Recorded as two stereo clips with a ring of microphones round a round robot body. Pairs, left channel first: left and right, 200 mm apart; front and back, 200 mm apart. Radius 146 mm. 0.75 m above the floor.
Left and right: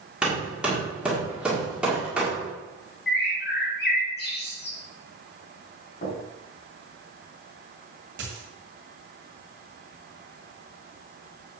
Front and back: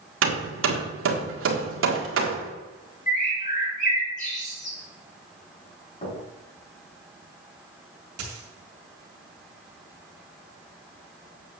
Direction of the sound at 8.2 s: 145° right.